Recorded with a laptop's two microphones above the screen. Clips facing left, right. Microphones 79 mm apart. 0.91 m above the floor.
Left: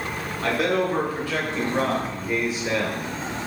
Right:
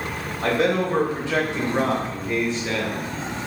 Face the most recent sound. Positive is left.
turn(degrees=25)  # may be behind; listen again after turning